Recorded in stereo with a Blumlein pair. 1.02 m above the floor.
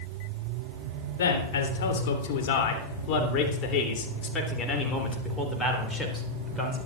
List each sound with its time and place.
1.2 s a man speaking: 60° left, 3.5 m; by 6.8 s 5° left, 3.5 m